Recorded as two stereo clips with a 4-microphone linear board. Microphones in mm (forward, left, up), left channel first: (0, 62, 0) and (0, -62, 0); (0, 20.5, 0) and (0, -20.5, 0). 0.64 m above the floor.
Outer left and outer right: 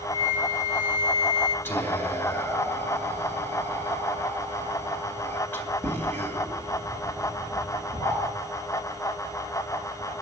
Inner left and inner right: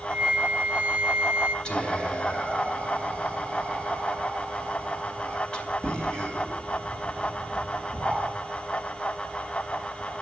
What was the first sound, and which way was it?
A flute, 25° right (ahead or behind).